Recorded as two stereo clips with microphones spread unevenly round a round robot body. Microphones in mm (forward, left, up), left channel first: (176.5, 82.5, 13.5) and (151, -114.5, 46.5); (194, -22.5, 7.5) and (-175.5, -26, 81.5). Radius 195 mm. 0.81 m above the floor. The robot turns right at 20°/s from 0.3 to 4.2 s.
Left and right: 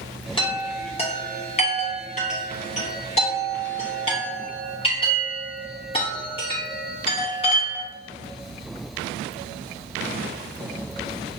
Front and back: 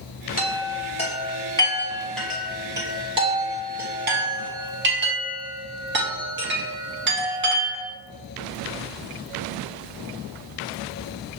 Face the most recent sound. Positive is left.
turn(degrees=120)